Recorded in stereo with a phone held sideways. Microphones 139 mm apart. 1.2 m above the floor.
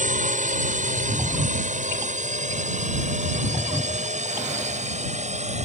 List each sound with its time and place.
0.0 s a drone: 65° right (ahead or behind); by 5.7 s 55° right (ahead or behind)